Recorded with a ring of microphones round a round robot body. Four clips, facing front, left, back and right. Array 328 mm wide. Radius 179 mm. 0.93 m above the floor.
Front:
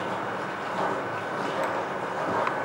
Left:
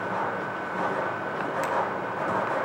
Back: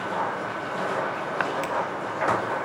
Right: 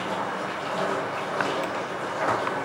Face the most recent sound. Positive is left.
turn(degrees=135)